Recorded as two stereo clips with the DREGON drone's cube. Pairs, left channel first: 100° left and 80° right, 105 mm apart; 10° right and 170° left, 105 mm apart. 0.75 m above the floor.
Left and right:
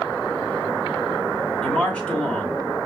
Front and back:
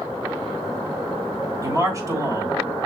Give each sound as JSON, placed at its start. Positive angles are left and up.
{"t": 1.6, "sound": "a man speaking", "azimuth_deg": 170, "distance_m": 1.2}